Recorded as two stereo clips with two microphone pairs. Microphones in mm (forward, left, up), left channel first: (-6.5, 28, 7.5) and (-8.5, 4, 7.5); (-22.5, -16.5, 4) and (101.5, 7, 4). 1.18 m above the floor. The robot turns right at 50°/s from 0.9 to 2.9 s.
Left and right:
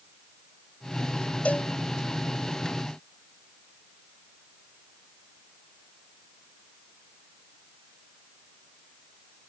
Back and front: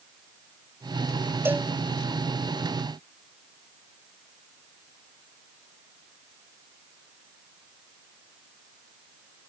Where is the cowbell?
80° left; by 1.7 s 95° left.